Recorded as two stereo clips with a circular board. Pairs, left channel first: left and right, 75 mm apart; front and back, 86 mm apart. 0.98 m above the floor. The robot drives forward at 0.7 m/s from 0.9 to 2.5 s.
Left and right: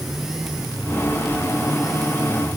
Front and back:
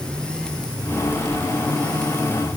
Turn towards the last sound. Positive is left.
No sound to turn to.